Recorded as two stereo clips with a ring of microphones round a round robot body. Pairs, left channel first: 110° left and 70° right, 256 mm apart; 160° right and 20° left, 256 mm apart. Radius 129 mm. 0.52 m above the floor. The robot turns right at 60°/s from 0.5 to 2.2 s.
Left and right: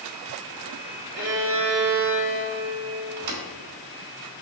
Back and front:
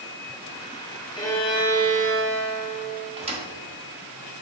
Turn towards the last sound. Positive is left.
turn(degrees=-45)